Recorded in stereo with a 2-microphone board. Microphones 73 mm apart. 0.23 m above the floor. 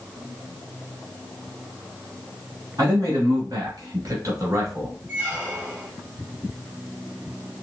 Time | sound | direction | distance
2.8 | a man speaking | 55° right (ahead or behind) | 1.9 m
5.1 | a squeak | 25° right (ahead or behind) | 1.6 m